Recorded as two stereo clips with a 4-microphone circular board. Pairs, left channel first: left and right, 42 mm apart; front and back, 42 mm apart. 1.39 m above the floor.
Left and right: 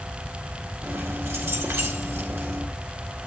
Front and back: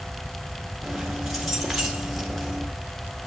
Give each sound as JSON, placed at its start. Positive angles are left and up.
{"t": 0.8, "sound": "keys jangling", "azimuth_deg": -95, "distance_m": 1.7}